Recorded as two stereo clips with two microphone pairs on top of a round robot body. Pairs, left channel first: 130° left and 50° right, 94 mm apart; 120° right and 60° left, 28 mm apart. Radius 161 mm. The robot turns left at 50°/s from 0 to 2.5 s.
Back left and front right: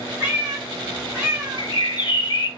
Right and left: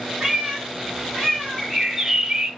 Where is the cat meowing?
5° right, 0.9 m; by 1.7 s 80° right, 0.9 m.